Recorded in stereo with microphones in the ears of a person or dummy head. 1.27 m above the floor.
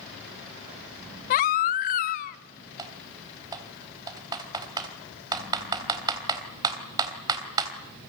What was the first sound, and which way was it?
A baby crying, 45° left (ahead or behind).